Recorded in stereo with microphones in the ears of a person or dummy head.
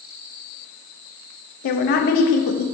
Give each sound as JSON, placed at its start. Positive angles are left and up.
{"t": 1.6, "sound": "a woman speaking", "side_deg": 50, "distance_m": 0.5}